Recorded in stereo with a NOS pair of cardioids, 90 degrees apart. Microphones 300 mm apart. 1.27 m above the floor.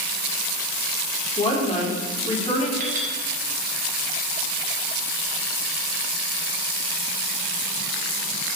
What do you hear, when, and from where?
1.4 s a woman speaking: 20° left, 3.5 m
2.8 s a clink: 25° right, 3 m